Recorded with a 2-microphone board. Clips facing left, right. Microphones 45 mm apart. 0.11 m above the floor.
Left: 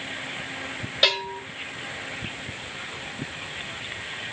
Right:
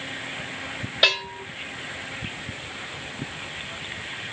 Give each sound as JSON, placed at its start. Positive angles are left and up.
{"t": 1.0, "sound": "a bell", "side_deg": -5, "distance_m": 4.5}